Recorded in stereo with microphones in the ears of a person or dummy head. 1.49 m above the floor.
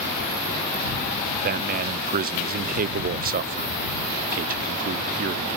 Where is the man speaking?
40° right (ahead or behind).